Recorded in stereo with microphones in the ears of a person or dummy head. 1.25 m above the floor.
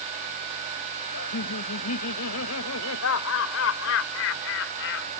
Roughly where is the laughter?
Left.